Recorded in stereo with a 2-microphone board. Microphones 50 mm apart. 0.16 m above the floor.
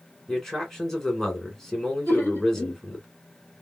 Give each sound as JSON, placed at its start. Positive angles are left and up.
{"t": 0.3, "sound": "a man speaking", "side_deg": 10, "distance_m": 2.0}
{"t": 2.1, "sound": "laughter", "side_deg": 45, "distance_m": 2.0}